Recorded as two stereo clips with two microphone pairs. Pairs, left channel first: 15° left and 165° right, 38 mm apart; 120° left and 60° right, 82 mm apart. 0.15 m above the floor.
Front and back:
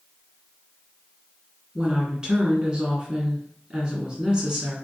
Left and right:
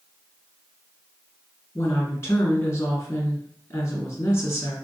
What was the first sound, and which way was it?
A woman speaking, 145° left.